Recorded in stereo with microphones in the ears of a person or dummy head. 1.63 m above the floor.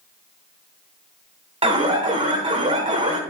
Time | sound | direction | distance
1.6 | an alarm | 25° right (ahead or behind) | 1.3 m